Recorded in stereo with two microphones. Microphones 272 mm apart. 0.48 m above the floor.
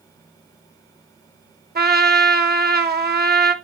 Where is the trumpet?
35° right (ahead or behind), 0.8 m.